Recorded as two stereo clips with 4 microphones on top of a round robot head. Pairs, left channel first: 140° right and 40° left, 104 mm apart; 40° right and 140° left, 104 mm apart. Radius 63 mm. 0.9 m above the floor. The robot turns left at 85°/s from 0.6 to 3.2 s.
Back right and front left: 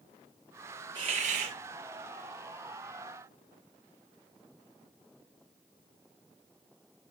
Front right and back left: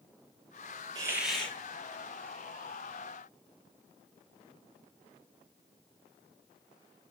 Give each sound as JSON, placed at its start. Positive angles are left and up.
{"t": 0.9, "sound": "a hiss", "azimuth_deg": 85, "distance_m": 5.5}